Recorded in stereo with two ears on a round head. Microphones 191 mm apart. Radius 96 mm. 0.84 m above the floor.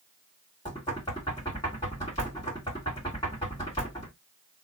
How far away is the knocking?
About 1.9 m.